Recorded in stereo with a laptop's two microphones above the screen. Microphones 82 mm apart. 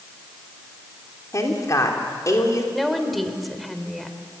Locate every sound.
1.3 s a woman speaking: 45° left (ahead or behind), 3 m
2.7 s a woman speaking: centre (ahead or behind), 3 m